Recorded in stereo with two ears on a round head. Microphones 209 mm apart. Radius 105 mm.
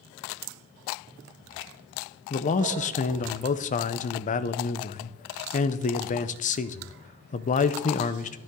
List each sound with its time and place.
2.3 s a man speaking: 35° left (ahead or behind), 0.7 m